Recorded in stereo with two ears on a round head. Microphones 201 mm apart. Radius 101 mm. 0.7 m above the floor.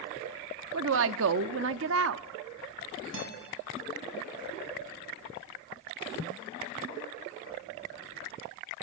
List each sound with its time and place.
0.7 s a woman speaking: 60° right (ahead or behind), 0.9 m
3.1 s a guitar: 65° right (ahead or behind), 7.5 m